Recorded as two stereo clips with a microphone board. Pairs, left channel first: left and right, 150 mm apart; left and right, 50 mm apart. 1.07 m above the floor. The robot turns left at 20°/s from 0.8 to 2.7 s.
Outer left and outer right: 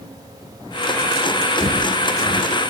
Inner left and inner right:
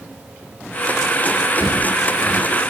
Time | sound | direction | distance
1.6 | footsteps | 10° right (ahead or behind) | 1.9 m